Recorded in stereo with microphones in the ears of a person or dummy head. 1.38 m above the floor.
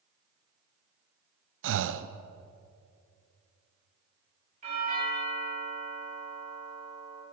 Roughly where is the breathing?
Right.